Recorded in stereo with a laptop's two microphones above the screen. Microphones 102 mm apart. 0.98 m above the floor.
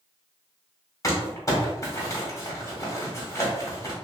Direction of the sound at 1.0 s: 35° left (ahead or behind).